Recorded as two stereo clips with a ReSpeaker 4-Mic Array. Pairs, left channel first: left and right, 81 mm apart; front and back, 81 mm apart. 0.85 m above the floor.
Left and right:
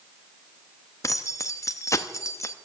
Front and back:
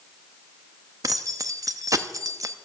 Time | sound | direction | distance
1.0 | keys jangling | 140° left | 0.8 m